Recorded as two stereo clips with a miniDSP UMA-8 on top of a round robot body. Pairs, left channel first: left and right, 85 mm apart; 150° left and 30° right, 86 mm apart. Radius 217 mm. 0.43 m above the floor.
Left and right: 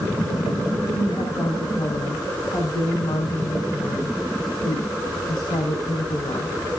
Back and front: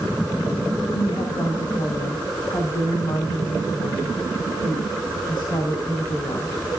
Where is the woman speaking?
115° left, 4 m.